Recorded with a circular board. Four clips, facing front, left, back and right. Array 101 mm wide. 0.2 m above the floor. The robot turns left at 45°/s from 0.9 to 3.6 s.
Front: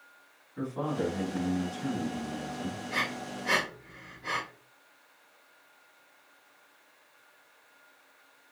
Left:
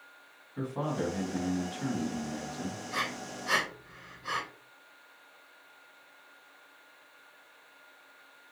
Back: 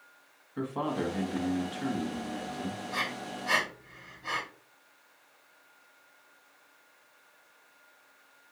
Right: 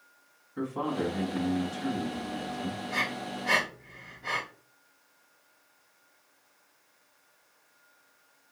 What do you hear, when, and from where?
0.6 s a man speaking: 175° right, 1.6 m; by 2.8 s 100° left, 1.6 m
2.9 s breathing: 30° right, 2.5 m; by 4.4 s 60° right, 2.5 m